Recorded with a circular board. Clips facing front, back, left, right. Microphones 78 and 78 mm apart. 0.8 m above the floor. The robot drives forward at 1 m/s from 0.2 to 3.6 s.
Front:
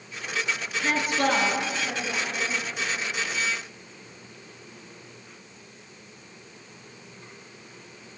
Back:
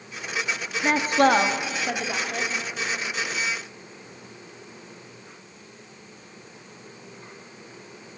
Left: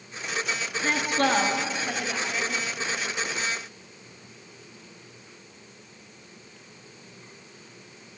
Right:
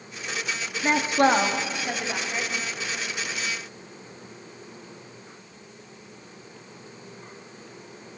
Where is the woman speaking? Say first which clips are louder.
Back 6 dB, right 4 dB; 135° right, 1.2 m; by 2.5 s 165° right, 2.5 m.